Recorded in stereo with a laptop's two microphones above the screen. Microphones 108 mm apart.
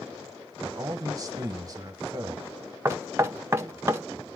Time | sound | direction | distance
0.6 | a man speaking | 35° right (ahead or behind) | 0.8 m
2.9 | knocking | 25° right (ahead or behind) | 0.8 m